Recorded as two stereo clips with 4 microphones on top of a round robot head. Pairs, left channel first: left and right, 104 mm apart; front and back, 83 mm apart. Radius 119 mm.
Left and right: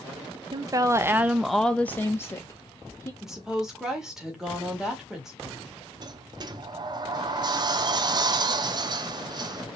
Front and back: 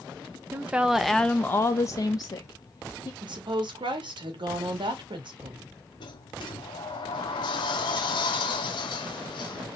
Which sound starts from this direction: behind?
A woman speaking, at 3.2 s.